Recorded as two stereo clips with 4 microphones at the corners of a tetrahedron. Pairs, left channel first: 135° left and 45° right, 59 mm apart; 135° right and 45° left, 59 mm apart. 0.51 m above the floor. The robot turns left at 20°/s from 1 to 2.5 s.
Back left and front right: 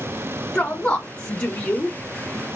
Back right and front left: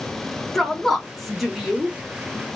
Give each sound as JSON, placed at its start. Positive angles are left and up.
{"t": 0.6, "sound": "a woman speaking", "azimuth_deg": 145, "distance_m": 0.7}